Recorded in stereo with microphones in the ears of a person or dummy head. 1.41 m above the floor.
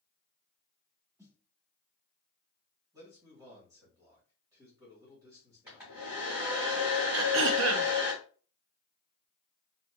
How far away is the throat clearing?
About 0.6 m.